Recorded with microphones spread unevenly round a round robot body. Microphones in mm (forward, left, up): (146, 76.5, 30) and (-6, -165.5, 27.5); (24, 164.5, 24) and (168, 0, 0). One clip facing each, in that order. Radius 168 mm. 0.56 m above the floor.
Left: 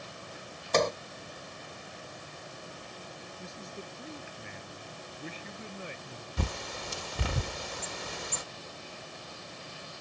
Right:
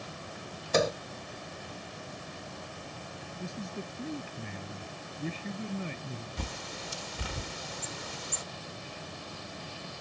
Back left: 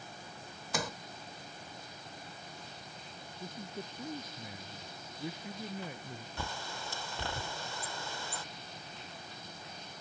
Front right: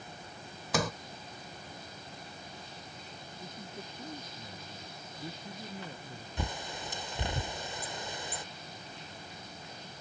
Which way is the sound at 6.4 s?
25° left.